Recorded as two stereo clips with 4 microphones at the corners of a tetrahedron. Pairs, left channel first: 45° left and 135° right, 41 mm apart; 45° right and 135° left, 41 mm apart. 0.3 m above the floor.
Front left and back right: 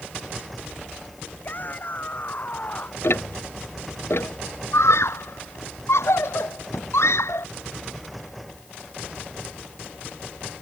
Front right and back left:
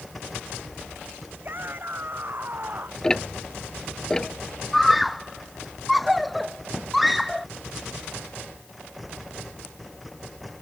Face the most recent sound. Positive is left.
turn(degrees=45)